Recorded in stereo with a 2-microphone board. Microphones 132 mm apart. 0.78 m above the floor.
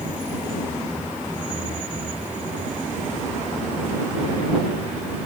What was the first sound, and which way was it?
Only background noise.